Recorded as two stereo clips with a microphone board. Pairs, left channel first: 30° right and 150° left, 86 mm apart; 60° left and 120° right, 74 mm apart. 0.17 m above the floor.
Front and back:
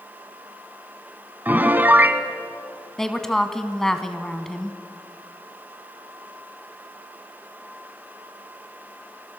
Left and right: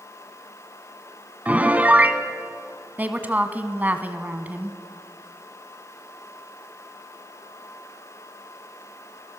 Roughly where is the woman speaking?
Right.